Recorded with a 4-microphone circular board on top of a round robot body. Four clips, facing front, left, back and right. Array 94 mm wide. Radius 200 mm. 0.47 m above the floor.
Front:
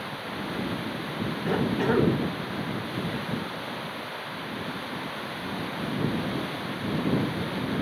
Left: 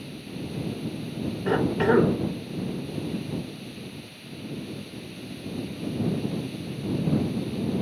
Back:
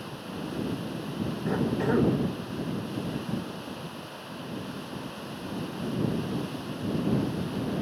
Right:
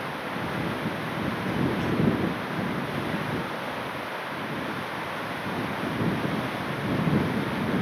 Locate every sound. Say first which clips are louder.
0.0 s running water: right 5 dB, front 3 dB; 70° right
1.5 s a cough: left 7 dB, front 2 dB; 80° left